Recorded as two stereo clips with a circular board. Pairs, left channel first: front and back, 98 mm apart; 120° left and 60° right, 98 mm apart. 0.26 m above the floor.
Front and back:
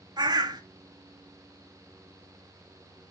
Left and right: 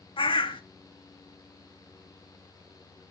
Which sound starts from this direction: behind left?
A bird, at 0.2 s.